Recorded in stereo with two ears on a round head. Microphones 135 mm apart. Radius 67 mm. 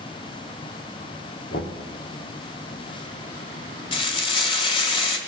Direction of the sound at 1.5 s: 75° left (ahead or behind).